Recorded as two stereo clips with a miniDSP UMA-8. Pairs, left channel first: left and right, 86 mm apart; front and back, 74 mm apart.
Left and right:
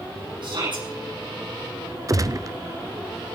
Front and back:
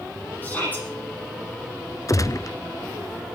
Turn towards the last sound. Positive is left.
turn(degrees=-45)